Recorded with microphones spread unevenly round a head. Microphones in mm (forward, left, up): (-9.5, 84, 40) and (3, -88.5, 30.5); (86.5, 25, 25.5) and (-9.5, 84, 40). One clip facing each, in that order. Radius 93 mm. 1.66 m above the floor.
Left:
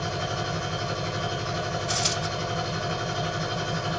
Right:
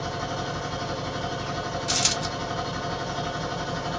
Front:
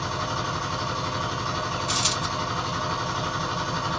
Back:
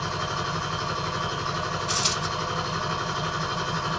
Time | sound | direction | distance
0.0 | a machine running | 55° left | 1.6 m
1.9 | a dropped coin | 90° right | 1.6 m